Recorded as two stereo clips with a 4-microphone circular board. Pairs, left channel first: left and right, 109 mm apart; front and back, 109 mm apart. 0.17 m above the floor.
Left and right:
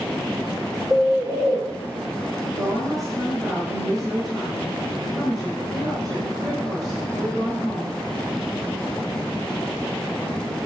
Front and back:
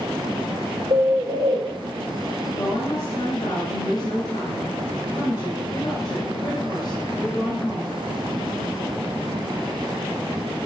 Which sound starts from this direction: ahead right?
A woman speaking, at 2.5 s.